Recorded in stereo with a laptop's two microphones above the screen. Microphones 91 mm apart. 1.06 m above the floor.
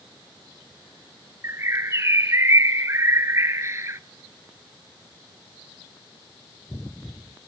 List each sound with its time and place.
1.4 s a bird: 30° right (ahead or behind), 0.8 m